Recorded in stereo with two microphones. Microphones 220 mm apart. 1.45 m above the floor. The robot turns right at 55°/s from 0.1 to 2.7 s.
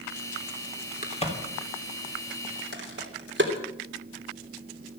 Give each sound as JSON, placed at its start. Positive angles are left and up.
{"t": 1.0, "sound": "a crack", "side_deg": 40, "distance_m": 3.5}